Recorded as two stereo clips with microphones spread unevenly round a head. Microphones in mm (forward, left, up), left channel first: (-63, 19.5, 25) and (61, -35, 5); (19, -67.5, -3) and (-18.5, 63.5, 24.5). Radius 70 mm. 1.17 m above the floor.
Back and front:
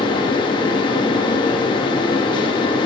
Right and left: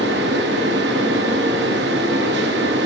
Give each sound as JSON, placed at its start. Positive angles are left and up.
{"t": 0.0, "sound": "a fan", "azimuth_deg": 95, "distance_m": 1.7}